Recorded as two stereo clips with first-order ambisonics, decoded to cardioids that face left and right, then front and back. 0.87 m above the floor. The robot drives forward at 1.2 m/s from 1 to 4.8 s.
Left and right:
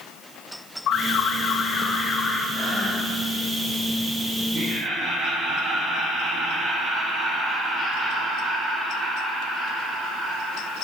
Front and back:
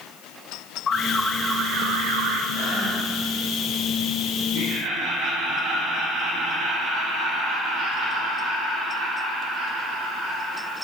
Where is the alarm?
60° left, 0.8 m; by 2.4 s 160° left, 1.6 m.